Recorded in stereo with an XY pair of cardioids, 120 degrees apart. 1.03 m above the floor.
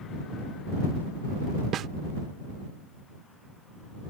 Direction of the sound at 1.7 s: 55° right.